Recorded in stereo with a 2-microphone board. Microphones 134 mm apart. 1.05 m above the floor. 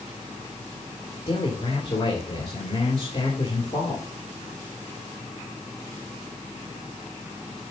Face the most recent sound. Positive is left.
turn(degrees=40)  # may be behind; listen again after turning